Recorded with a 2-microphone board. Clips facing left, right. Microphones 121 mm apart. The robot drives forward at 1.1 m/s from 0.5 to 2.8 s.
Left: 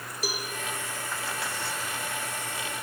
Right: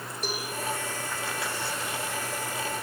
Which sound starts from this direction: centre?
A cowbell, at 0.2 s.